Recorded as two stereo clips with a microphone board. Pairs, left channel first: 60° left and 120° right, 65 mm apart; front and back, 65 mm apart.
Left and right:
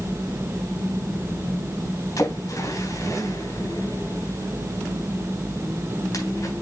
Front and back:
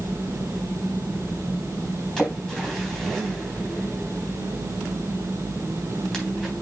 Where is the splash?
80° left, 3.5 m.